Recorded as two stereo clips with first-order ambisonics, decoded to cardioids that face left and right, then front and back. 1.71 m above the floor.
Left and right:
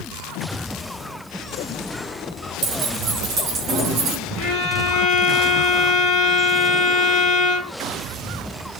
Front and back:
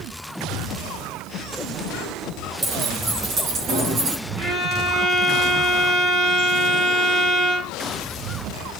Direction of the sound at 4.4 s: 115° left.